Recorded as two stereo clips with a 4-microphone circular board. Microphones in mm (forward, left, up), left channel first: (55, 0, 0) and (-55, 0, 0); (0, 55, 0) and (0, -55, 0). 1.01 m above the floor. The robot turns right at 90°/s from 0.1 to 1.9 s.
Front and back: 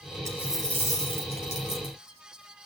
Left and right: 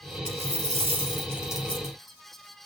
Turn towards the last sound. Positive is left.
turn(degrees=30)